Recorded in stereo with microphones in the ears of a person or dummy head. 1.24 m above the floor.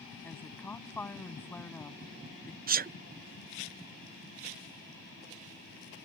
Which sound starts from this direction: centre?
A woman speaking, at 0.2 s.